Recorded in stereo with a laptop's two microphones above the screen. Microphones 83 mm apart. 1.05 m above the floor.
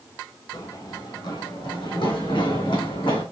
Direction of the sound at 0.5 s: 45° left (ahead or behind).